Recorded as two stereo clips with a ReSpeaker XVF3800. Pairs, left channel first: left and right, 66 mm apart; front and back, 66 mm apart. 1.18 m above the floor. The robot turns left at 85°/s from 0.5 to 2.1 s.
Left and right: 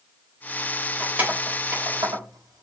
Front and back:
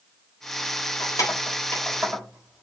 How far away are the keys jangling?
About 3.5 m.